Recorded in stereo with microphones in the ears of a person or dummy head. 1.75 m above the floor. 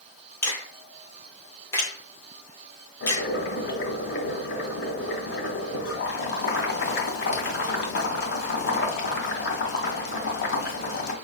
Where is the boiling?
70° left (ahead or behind), 1.7 m.